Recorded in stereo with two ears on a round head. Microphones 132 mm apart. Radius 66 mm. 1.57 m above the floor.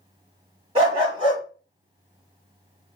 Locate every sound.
0.8 s a dog barking: 35° right (ahead or behind), 1.2 m